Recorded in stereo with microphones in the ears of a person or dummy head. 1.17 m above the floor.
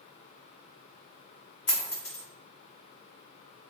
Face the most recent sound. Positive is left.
turn(degrees=5)  # may be behind; listen again after turning